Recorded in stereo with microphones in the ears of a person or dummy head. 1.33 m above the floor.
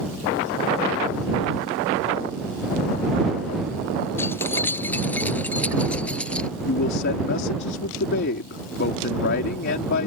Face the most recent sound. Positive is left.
turn(degrees=60)  # may be behind; listen again after turning